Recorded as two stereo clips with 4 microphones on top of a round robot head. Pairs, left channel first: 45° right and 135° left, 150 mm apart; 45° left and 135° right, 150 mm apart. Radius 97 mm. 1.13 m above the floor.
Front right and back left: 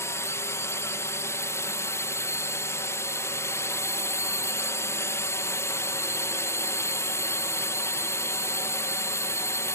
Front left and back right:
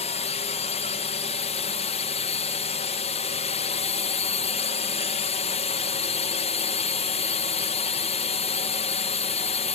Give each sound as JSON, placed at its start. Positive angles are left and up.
{"t": 0.0, "sound": "a drone", "azimuth_deg": 20}